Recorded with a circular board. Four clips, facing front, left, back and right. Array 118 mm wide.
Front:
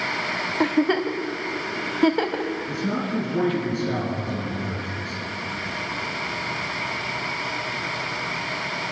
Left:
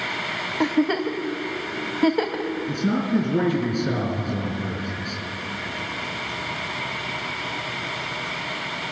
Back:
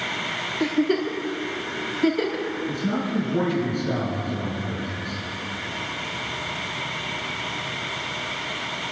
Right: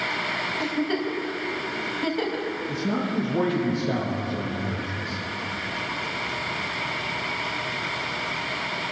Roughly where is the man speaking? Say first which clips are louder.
Left 5 dB, back 1 dB; left.